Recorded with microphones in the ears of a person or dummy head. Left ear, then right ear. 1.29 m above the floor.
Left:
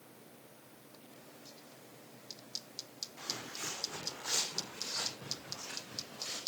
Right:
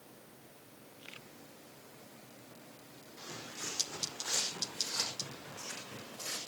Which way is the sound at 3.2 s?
20° left (ahead or behind).